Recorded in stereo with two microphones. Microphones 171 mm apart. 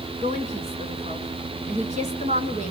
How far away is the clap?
No clap in this recording.